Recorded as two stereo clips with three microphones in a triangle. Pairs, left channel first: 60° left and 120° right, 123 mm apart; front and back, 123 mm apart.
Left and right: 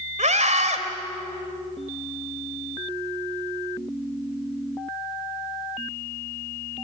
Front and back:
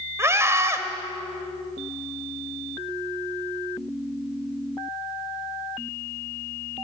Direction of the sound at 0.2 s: 115° right.